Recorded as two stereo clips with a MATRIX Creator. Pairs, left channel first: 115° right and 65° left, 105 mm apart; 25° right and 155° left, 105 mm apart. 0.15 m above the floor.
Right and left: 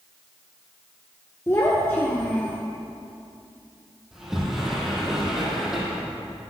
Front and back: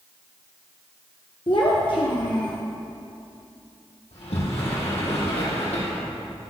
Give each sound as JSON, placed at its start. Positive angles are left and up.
{"t": 1.5, "sound": "a child speaking", "azimuth_deg": -50, "distance_m": 1.8}
{"t": 4.1, "sound": "a sliding door", "azimuth_deg": -20, "distance_m": 4.0}